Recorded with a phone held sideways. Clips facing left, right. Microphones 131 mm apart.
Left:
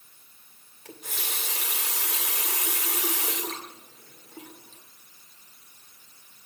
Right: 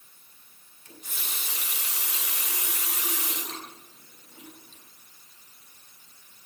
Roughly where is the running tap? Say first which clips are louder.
Left 5 dB; left.